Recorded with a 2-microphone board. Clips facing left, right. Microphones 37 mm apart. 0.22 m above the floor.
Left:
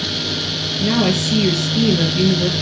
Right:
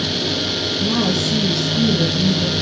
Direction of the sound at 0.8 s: 55° left (ahead or behind).